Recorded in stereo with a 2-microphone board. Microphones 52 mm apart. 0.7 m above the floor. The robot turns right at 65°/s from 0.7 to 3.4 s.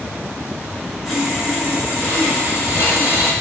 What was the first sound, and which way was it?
Sawing, 175° left.